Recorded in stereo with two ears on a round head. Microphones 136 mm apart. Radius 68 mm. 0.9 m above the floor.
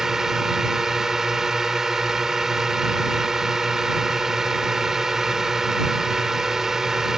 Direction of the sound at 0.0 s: 5° right (ahead or behind).